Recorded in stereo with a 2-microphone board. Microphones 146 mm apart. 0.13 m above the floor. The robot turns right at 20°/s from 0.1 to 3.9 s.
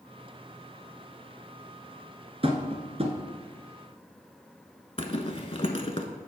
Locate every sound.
2.4 s tapping: 45° right (ahead or behind), 1.0 m
5.0 s a zipper: 40° left (ahead or behind), 0.8 m